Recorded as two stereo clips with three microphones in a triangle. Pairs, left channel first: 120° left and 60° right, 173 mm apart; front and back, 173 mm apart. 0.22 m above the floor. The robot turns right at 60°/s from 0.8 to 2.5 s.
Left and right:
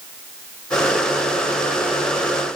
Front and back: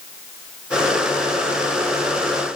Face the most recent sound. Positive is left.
No sound to turn to.